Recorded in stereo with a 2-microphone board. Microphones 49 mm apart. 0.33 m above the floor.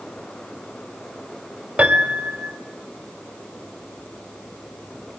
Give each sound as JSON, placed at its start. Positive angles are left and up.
{"t": 1.8, "sound": "a piano", "side_deg": -25, "distance_m": 1.8}